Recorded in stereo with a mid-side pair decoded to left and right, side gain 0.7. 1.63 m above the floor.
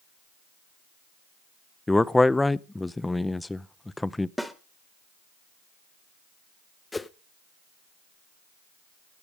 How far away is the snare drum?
About 1.2 m.